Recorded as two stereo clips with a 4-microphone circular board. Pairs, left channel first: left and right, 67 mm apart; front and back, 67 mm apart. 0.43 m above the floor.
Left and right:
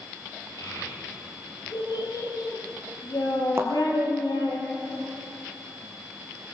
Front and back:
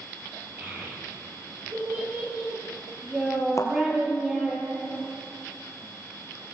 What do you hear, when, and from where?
0.6 s a child speaking: 115° left, 9.5 m; by 4.6 s 100° left, 10 m
3.6 s a thud: 40° right, 3 m